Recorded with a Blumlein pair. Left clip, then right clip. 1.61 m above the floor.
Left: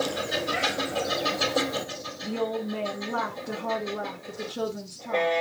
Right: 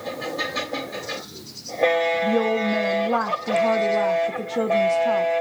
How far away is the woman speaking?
About 0.5 m.